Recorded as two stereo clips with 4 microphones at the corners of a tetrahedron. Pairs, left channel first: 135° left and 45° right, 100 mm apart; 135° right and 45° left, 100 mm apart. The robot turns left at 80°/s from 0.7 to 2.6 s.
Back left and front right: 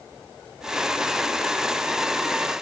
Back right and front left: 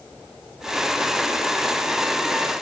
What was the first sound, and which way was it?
Only background noise.